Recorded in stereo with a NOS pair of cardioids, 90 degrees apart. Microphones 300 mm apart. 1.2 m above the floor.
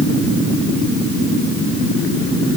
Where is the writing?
No writing in this recording.